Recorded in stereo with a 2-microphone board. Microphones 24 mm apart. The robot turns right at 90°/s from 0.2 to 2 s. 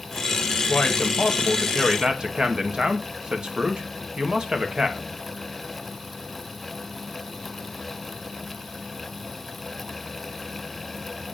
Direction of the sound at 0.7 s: 95° left.